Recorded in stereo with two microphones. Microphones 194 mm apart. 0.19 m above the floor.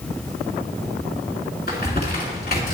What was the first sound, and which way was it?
Crumpling, 55° left (ahead or behind).